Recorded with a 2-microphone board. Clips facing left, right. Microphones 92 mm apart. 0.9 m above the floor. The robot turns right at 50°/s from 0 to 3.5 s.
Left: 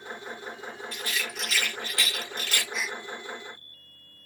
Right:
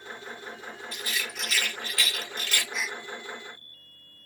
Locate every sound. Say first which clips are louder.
0.9 s a rattle: even; 20° right (ahead or behind), 1.5 m; by 2.6 s 45° left (ahead or behind), 1.5 m
2.7 s a gasp: left 1 dB; 5° left (ahead or behind), 0.5 m; by 3.0 s centre (ahead or behind), 0.5 m